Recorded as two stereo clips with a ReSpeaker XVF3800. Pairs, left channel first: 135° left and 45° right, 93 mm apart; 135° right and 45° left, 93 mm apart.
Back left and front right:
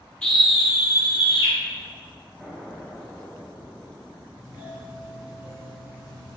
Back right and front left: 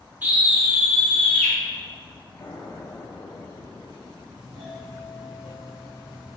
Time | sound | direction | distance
0.2 | a scream | 70° left | 0.8 m
2.4 | an explosion | 125° right | 0.7 m
4.4 | a doorbell | 30° right | 1.6 m